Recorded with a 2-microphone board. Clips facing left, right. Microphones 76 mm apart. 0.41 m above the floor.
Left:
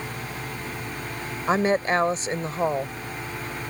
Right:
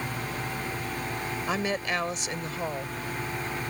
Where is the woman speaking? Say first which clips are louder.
Left 9 dB; 35° left (ahead or behind).